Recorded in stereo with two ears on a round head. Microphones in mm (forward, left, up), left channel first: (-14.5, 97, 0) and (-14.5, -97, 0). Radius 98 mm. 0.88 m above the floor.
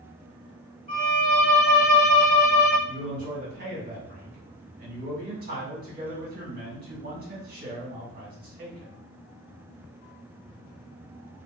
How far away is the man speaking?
About 1.8 m.